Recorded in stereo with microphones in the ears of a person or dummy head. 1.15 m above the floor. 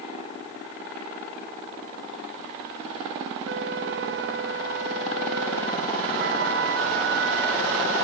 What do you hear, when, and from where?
3.5 s a flute: 60° right (ahead or behind), 1.0 m